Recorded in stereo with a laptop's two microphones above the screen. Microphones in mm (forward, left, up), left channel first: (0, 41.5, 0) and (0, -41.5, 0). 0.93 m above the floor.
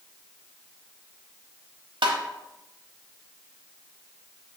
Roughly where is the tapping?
Right.